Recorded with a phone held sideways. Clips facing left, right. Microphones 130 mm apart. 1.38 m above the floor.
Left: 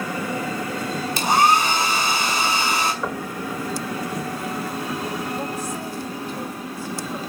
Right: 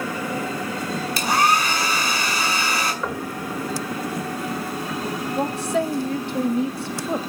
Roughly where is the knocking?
Centre.